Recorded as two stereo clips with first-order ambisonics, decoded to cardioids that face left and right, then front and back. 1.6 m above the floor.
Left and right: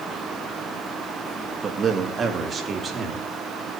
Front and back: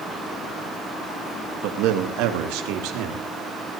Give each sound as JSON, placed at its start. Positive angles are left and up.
{"t": 1.6, "sound": "a man speaking", "azimuth_deg": -155, "distance_m": 2.5}